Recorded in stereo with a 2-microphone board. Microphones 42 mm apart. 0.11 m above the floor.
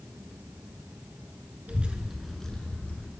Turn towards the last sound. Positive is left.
turn(degrees=40)  # may be behind; listen again after turning